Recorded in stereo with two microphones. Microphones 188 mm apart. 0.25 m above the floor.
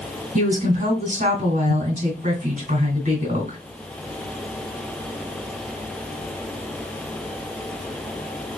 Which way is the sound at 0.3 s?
45° right (ahead or behind).